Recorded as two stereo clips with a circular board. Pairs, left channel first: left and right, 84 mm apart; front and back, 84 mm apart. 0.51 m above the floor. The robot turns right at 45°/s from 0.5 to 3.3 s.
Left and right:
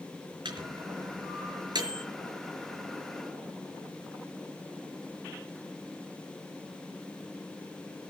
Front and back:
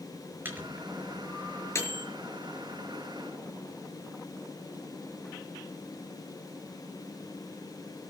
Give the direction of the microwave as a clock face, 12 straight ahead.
4 o'clock.